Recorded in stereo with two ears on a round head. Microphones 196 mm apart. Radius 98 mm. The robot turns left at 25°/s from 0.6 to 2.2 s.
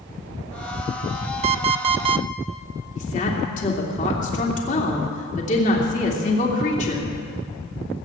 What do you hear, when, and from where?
1.4 s an alarm clock: 30° right (ahead or behind), 0.5 m; by 2.3 s 25° right (ahead or behind), 0.5 m
3.0 s a woman speaking: 35° left (ahead or behind), 3 m